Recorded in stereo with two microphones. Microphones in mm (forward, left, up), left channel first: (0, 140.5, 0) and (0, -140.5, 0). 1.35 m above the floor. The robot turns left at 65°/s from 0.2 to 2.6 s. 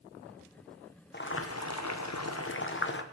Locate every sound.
1.1 s boiling: 140° left, 1.0 m; by 3.0 s 45° left, 1.0 m